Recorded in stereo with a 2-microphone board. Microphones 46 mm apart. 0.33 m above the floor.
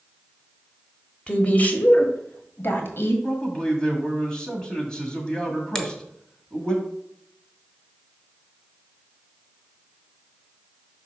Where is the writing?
I don't hear writing.